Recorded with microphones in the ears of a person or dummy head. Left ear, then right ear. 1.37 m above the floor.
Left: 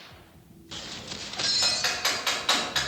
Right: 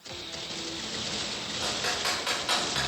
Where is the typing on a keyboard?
10° left (ahead or behind), 4 m.